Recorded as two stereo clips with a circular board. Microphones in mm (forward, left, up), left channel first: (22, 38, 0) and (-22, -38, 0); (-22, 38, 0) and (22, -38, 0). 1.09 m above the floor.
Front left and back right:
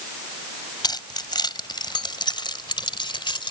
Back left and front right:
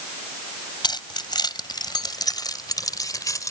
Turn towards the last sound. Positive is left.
turn(degrees=75)